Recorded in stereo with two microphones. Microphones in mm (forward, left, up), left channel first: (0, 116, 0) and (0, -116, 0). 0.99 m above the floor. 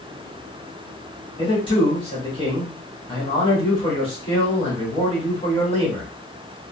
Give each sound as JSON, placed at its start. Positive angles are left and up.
{"t": 1.4, "sound": "a man speaking", "side_deg": 25, "distance_m": 1.7}